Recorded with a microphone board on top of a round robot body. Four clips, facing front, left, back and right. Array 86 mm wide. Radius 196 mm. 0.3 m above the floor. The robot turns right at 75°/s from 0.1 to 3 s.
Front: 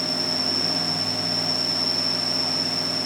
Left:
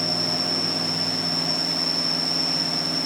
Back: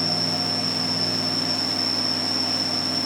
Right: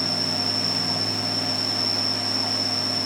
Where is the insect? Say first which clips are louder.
Left 1 dB, back 1 dB; 105° right, 7 m; by 3.1 s 110° left, 7 m.